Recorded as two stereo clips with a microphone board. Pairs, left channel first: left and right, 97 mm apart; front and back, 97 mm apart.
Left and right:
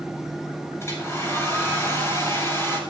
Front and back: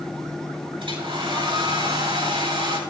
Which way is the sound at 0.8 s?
150° left.